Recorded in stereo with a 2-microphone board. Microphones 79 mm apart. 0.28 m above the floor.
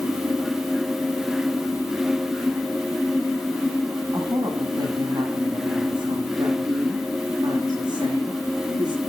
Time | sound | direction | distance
4.1 | a woman speaking | 60° right (ahead or behind) | 2 m